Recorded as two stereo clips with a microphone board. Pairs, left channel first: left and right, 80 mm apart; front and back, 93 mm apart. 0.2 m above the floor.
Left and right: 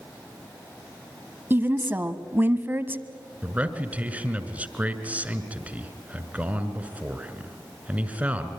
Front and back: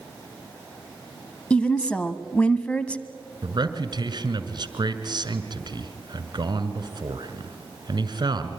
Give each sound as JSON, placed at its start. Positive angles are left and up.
{"t": 1.5, "sound": "a woman speaking", "azimuth_deg": -65, "distance_m": 1.1}
{"t": 3.4, "sound": "a man speaking", "azimuth_deg": -160, "distance_m": 2.0}